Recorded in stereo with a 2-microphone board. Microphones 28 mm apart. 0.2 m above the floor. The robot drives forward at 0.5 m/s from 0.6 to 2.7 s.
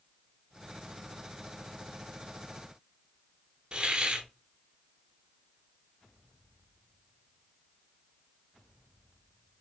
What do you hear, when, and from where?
3.7 s a hiss: 30° right (ahead or behind), 0.7 m